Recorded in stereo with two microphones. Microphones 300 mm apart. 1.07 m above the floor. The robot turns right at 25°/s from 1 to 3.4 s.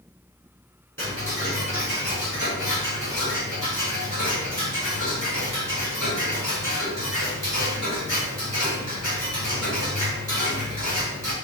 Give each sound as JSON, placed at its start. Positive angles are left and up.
{"t": 1.0, "sound": "ticking", "azimuth_deg": -140, "distance_m": 5.5}